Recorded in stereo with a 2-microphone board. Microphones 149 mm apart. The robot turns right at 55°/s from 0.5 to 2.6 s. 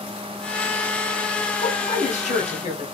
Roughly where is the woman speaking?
Ahead left.